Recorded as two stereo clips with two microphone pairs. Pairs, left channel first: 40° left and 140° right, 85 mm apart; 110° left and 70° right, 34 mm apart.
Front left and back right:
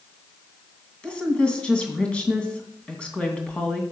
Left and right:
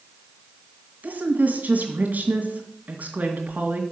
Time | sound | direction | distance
1.0 | a woman speaking | 40° right | 2.5 m